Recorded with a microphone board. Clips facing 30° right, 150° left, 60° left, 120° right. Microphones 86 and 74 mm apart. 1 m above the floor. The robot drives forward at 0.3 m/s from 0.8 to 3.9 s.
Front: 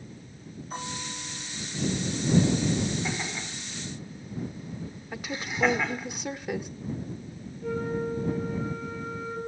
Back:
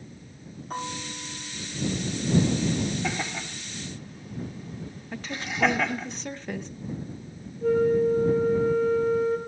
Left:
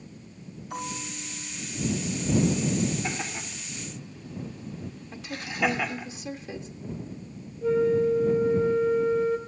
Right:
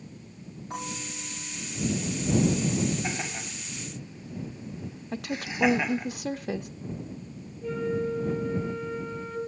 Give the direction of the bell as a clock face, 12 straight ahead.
6 o'clock.